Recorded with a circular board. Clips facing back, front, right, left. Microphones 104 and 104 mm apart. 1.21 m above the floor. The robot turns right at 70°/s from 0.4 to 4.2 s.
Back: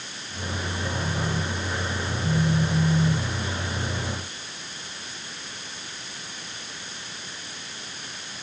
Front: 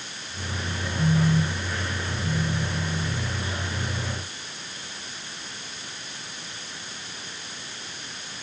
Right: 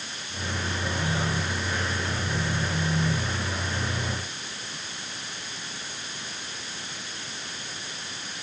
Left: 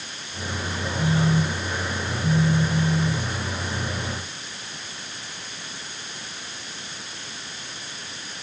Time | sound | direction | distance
1.0 | a phone buzzing | 25° left | ?